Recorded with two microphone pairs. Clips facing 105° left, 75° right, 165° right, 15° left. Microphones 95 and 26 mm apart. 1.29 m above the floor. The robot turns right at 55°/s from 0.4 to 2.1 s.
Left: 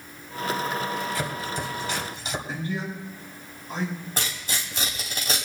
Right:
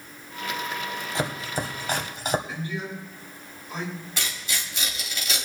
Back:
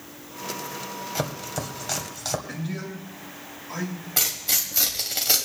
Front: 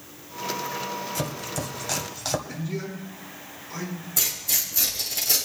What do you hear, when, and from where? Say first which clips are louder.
1.1 s chopping: right 1 dB, back 1 dB; 135° right, 1.4 m; by 2.4 s 80° right, 1.4 m
2.5 s a man speaking: left 2 dB, front 1 dB; 160° left, 6 m
4.2 s tearing paper: left 2 dB, back 2 dB; 150° left, 3 m